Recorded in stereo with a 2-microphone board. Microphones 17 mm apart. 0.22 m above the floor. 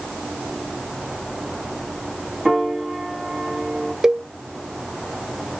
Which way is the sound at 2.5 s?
25° right (ahead or behind).